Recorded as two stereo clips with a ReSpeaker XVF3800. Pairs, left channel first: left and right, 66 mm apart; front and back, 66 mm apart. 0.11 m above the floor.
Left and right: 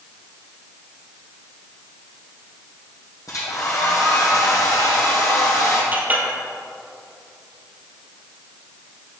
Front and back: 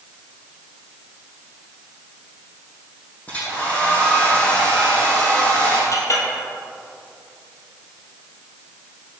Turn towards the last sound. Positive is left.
turn(degrees=-30)